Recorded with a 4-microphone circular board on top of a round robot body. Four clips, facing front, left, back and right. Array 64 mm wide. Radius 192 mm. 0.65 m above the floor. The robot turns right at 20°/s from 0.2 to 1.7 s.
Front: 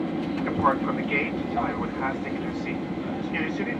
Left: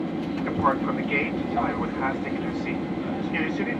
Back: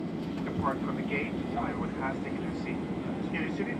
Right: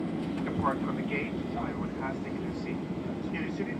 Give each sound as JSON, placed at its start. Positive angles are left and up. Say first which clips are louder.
{"t": 0.0, "sound": "an aircraft", "louder": "left 5 dB, front 7 dB", "azimuth_deg": 25}